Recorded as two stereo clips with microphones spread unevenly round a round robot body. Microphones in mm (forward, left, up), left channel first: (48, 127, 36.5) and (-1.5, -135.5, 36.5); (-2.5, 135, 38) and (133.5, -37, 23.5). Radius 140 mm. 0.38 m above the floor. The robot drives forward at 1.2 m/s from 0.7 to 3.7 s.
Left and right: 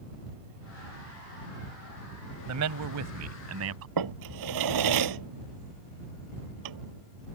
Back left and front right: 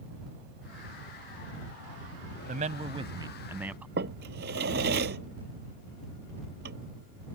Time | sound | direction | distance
2.5 | a man speaking | 105° right | ?
4.0 | a drawer | 110° right | ?